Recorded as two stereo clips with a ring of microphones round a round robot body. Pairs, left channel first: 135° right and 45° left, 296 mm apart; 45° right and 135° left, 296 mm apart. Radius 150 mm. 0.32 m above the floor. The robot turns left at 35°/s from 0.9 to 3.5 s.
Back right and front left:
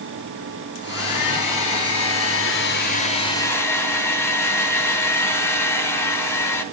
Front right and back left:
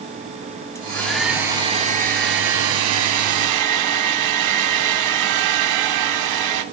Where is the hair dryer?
125° right, 3 m; by 6.6 s 145° left, 3 m.